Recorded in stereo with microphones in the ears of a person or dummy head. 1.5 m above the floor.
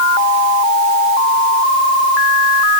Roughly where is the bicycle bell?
I don't hear a bicycle bell.